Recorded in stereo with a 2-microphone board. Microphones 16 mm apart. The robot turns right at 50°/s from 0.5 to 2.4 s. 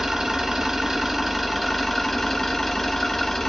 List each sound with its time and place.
0.0 s an engine running: 55° right, 1.0 m; by 3.5 s 40° left, 1.0 m